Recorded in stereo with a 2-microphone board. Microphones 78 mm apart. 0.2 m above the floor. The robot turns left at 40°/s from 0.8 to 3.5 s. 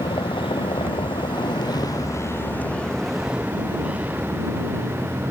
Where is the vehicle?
85° left; by 5.3 s 15° right (ahead or behind).